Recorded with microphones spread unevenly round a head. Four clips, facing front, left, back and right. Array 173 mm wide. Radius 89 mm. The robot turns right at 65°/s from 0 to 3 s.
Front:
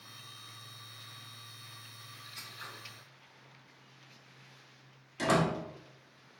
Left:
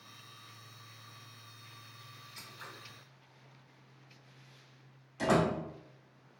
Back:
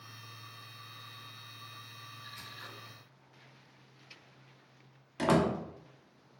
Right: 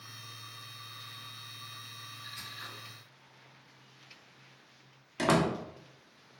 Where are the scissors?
100° left, 1.1 m; by 2.7 s 120° left, 1.1 m.